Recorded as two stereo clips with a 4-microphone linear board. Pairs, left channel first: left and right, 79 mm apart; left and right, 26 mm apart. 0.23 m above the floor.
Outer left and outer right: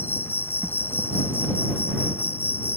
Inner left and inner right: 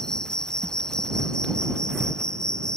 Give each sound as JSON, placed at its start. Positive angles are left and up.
{"t": 0.0, "sound": "an insect", "side_deg": 30}